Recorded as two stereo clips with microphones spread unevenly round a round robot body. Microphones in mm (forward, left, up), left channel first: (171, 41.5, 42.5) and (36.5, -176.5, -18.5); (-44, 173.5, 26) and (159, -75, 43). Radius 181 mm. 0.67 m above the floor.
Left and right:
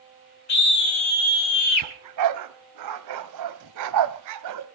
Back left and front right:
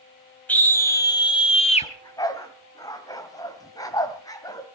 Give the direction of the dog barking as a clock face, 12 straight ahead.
5 o'clock.